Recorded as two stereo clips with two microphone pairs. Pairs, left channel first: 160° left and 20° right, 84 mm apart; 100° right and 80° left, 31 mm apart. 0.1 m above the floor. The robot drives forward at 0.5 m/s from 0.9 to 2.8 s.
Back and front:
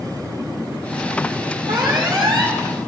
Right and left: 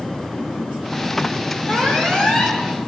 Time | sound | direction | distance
1.7 | an alarm | 35° right | 5.5 m